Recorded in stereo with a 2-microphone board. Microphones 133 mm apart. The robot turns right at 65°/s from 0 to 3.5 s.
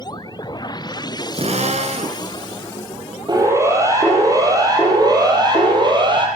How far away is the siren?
About 7.5 m.